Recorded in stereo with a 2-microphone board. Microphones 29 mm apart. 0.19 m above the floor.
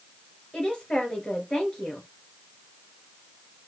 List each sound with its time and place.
0.5 s a woman speaking: 35° left (ahead or behind), 2.5 m